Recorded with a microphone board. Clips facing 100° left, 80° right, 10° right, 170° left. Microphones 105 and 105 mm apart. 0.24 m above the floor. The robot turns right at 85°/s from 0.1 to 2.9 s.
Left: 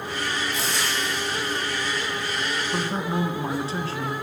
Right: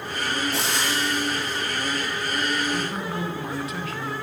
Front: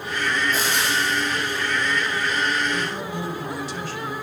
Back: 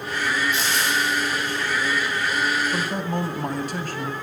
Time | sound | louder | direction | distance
0.5 | frying | right 2 dB, even | 65° right | 6 m
2.7 | a man speaking | left 2 dB, back 2 dB | 135° left | 2.0 m